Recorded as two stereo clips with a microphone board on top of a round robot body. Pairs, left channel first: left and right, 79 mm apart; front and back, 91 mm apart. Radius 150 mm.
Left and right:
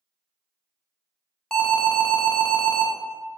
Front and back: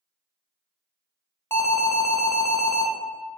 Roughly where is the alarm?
Ahead.